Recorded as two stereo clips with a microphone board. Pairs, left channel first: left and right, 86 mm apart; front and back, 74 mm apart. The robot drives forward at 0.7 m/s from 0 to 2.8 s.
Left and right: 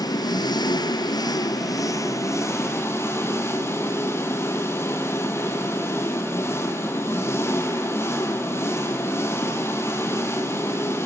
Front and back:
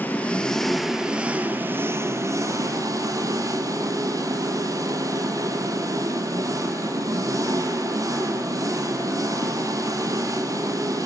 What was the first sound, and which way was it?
An engine running, 60° left.